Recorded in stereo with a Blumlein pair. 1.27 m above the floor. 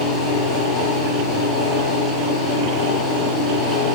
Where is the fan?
15° left, 0.9 m.